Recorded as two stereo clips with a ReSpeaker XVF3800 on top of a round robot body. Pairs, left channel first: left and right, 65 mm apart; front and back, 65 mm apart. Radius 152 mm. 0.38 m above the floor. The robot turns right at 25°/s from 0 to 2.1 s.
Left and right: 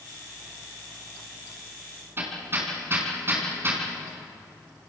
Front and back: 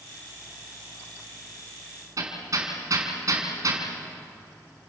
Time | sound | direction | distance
2.2 | hammering | 145° right | 4.5 m